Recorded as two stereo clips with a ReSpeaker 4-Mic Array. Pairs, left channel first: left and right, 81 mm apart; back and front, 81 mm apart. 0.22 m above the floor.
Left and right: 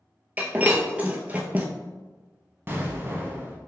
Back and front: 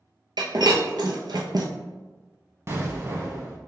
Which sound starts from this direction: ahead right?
An explosion, at 2.7 s.